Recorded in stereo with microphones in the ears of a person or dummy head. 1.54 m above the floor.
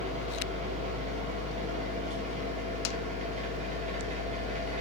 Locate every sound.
0.0 s a machine running: 40° right (ahead or behind), 0.7 m